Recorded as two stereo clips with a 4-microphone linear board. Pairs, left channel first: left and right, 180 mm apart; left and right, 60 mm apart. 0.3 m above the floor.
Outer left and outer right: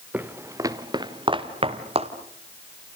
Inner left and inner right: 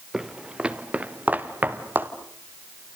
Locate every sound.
0.1 s footsteps: 10° right (ahead or behind), 1.6 m; by 2.1 s 35° right (ahead or behind), 2.5 m